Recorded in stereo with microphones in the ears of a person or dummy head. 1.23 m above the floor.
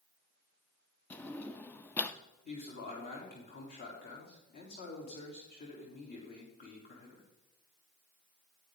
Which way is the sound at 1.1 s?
20° left (ahead or behind).